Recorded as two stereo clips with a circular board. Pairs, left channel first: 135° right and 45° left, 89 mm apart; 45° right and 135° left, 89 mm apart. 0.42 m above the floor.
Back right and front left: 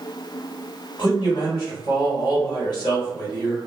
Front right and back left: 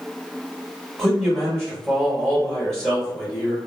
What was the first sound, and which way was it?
A man speaking, 130° right.